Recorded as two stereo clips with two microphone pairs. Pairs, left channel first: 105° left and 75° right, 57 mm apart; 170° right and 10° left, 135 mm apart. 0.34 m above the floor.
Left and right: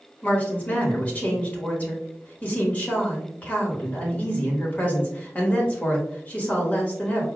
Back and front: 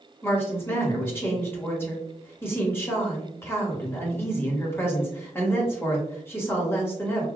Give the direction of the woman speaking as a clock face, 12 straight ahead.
8 o'clock.